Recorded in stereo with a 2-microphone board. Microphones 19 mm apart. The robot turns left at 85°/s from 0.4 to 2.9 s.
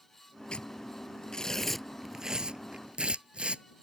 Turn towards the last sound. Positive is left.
turn(degrees=-75)  # may be behind; listen again after turning